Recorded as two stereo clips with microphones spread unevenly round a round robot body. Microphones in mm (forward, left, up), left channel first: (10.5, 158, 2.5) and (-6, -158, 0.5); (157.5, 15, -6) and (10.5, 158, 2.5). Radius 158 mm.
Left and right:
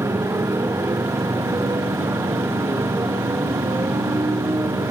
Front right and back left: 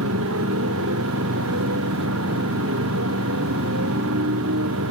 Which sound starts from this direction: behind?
A motorcycle, at 0.0 s.